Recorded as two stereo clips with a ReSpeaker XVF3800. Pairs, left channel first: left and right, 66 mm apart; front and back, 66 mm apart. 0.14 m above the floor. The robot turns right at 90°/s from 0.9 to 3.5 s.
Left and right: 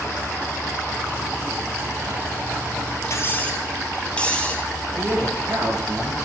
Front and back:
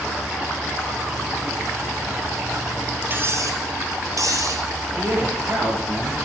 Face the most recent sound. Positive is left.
turn(degrees=-135)